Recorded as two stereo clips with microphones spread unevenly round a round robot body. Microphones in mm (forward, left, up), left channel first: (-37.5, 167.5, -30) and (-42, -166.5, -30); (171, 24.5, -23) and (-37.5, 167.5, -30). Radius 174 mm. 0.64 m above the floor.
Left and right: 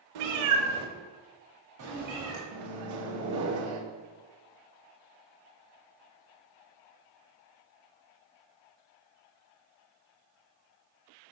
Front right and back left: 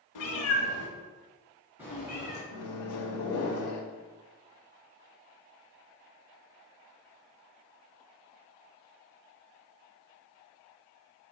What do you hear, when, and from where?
0.1 s a cat meowing: 60° right, 0.8 m; by 2.4 s 135° right, 2.5 m
2.5 s a microwave: 55° right, 0.7 m